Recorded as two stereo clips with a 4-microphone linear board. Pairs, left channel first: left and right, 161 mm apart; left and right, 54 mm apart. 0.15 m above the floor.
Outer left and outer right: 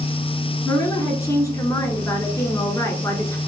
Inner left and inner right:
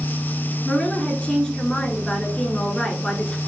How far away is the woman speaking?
About 1.6 m.